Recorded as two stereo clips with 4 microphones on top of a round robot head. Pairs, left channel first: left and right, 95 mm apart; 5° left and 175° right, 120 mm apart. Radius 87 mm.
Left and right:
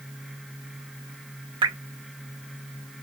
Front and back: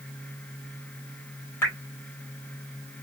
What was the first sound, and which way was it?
Dripping, 65° right.